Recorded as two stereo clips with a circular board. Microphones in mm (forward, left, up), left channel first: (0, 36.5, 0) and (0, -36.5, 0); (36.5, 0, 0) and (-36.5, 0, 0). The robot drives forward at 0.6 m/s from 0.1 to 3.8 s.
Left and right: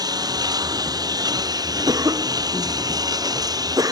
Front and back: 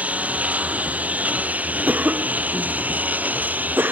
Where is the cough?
115° right; by 3.9 s 120° right.